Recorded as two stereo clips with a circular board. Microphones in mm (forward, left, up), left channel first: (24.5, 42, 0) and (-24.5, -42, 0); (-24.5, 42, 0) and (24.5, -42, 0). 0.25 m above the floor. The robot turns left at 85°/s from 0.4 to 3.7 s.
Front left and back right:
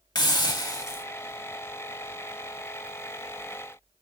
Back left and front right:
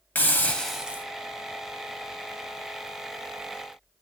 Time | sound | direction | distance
0.1 | a hiss | 55° left | 0.5 m